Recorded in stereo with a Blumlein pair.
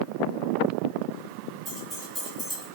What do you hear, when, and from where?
1.6 s keys jangling: straight ahead, 2.5 m; by 2.7 s 10° left, 1.5 m